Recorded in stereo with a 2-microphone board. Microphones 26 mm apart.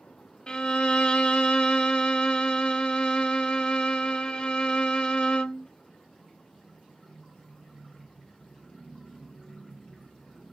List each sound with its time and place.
0.5 s a violin: 40° left (ahead or behind), 0.6 m